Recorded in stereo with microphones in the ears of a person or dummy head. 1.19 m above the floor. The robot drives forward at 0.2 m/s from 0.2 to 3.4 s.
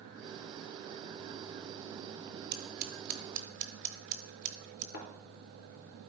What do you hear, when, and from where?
2.5 s scissors: 50° right (ahead or behind), 0.9 m; by 4.8 s 45° right (ahead or behind), 0.9 m
4.9 s a thud: 65° left (ahead or behind), 3 m